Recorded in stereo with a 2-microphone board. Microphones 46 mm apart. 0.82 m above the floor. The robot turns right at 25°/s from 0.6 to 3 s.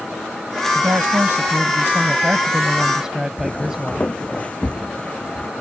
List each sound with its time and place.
0.8 s a woman speaking: 70° right; by 4.1 s 15° right
3.4 s footsteps: 30° left (ahead or behind); by 5.5 s 20° left (ahead or behind)